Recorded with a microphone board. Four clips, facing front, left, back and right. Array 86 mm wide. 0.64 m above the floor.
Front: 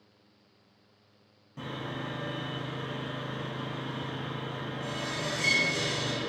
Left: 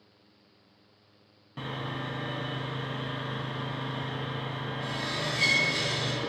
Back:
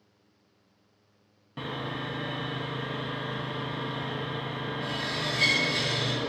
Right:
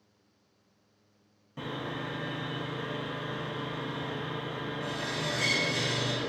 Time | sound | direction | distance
1.6 | sawing | 145° left | 0.6 m